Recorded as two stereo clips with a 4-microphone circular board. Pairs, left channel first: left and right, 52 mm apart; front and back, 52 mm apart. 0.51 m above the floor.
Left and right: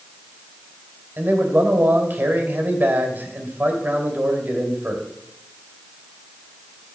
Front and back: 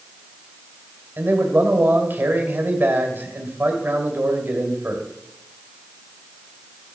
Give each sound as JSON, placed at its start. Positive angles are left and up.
{"t": 1.2, "sound": "a man speaking", "azimuth_deg": -135, "distance_m": 2.5}